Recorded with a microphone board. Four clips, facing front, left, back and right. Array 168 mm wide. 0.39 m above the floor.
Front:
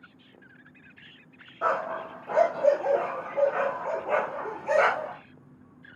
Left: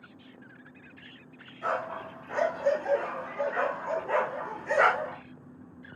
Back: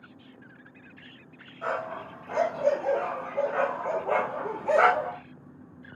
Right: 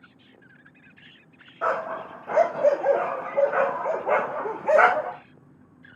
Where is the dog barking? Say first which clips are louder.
Right 5 dB, front 4 dB; 55° right, 4 m; by 5.2 s 105° right, 6.5 m.